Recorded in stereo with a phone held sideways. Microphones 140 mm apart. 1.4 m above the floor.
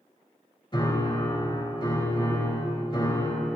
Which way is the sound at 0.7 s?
35° left (ahead or behind).